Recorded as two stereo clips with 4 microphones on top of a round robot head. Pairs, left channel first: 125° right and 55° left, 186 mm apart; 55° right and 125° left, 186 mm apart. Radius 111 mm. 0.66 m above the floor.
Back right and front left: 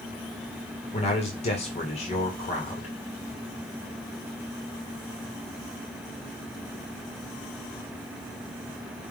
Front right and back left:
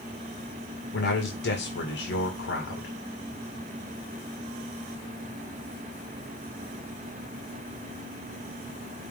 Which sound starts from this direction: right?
A man speaking, at 0.9 s.